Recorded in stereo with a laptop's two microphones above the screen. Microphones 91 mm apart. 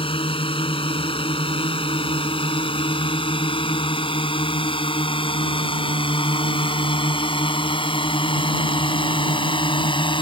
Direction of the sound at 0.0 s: 80° left.